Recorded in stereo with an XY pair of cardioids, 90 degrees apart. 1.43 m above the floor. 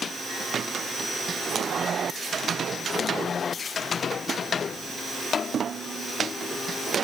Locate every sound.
Only background noise.